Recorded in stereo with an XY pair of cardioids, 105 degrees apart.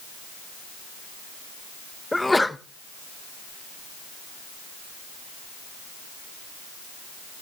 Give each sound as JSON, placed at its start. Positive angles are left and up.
{"t": 2.1, "sound": "a sneeze", "azimuth_deg": 10, "distance_m": 0.8}